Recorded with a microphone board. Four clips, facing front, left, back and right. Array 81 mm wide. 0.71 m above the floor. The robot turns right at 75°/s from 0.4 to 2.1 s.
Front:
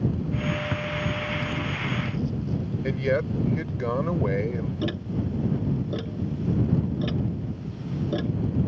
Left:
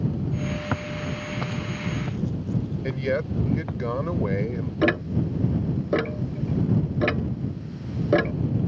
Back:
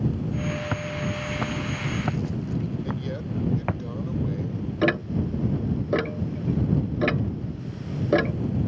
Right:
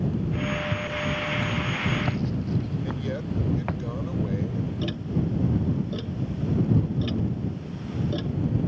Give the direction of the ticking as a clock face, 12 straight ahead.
8 o'clock.